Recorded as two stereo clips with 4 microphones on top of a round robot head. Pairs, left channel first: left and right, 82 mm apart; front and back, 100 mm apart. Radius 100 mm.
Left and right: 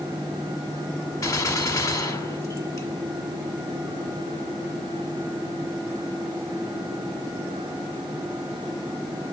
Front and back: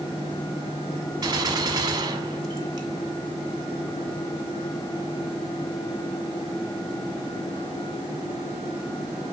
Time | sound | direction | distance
1.2 | a gunshot | 135° left | 2.0 m